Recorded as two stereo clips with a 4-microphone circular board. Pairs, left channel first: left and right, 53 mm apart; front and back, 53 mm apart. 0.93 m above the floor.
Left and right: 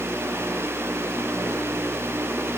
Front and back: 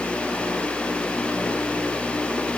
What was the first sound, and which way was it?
Only background noise.